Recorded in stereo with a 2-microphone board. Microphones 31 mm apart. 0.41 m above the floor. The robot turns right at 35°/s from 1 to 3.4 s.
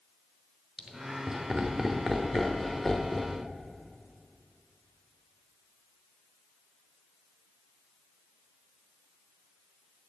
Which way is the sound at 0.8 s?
25° right (ahead or behind).